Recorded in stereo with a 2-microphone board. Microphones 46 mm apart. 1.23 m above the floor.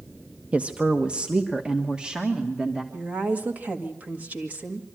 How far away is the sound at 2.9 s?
About 1.7 m.